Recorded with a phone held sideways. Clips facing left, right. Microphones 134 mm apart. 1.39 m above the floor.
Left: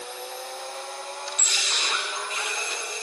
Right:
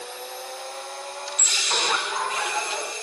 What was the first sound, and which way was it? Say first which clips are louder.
Laughter: right 7 dB; 85° right.